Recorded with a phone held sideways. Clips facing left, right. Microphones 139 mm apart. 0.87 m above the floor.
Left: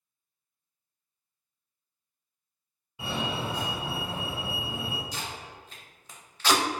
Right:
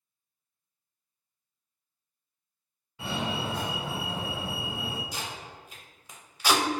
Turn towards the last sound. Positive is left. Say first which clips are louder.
# even
turn(degrees=-10)  # may be behind; listen again after turning